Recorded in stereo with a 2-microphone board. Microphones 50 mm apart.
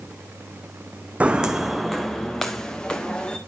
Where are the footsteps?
25° right (ahead or behind), 0.7 m; by 3.4 s 20° left (ahead or behind), 2 m.